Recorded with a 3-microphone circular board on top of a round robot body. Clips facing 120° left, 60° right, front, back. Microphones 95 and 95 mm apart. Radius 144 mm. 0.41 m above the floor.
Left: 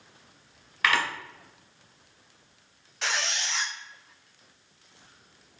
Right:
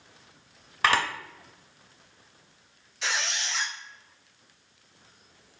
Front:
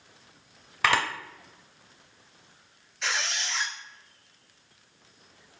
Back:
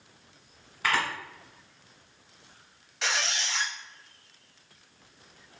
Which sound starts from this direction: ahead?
A camera shutter, at 0.8 s.